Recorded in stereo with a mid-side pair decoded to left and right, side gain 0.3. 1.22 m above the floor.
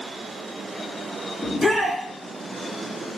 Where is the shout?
10° left, 2.5 m.